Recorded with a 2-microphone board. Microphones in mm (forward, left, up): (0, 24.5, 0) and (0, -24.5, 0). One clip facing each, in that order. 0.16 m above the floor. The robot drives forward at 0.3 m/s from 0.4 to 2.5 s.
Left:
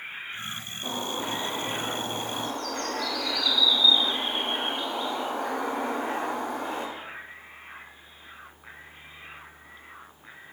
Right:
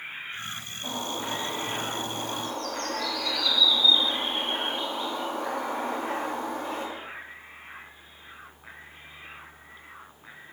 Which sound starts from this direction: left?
A bird, at 0.8 s.